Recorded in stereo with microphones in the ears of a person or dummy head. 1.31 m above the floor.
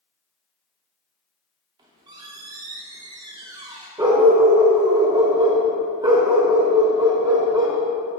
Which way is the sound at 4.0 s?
15° right (ahead or behind).